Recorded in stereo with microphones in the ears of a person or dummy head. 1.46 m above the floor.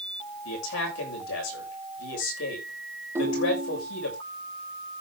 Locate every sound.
0.5 s a man speaking: 80° left, 7 m
3.1 s a ringtone: 15° right (ahead or behind), 4 m